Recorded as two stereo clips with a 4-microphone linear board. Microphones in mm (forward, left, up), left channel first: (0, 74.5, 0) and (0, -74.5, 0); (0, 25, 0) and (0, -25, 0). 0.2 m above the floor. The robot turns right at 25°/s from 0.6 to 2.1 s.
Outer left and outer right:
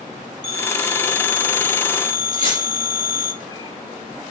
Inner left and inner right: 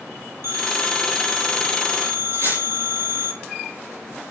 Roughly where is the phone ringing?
Behind right.